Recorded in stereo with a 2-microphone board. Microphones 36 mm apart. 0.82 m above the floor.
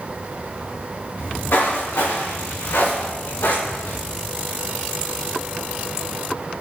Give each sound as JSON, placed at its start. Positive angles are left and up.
{"t": 1.2, "sound": "footsteps", "side_deg": 75, "distance_m": 5.0}